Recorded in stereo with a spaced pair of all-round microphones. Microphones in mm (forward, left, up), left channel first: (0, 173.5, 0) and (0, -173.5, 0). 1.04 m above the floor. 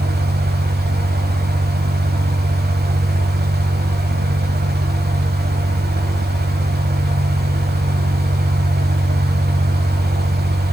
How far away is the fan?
About 1.3 m.